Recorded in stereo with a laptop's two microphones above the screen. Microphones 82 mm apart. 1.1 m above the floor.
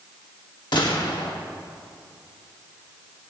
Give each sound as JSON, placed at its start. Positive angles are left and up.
{"t": 0.7, "sound": "a gunshot", "side_deg": 65, "distance_m": 1.3}